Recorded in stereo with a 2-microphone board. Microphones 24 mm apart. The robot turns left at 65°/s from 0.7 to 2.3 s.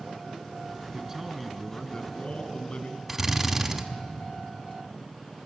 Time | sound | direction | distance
0.9 | a man speaking | 155° right | 2 m
3.1 | a drill | 10° right (ahead or behind) | 1.6 m